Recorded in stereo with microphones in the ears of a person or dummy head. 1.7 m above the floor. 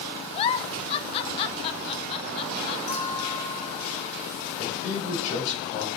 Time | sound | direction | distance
0.3 | a giggle | 30° left (ahead or behind) | 0.9 m
2.9 | a clink | 35° left (ahead or behind) | 2.5 m
4.6 | a man speaking | 45° left (ahead or behind) | 6.5 m